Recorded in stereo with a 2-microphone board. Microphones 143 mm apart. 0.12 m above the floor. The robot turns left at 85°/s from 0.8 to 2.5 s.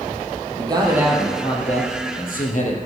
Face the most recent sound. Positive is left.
turn(degrees=65)